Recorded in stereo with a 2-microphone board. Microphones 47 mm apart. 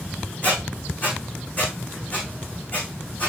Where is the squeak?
40° left (ahead or behind), 4.5 m.